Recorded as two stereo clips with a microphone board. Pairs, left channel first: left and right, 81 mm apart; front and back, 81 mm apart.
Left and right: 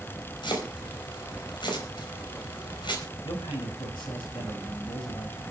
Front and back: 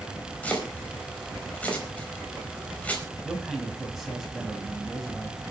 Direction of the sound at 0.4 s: 75° left.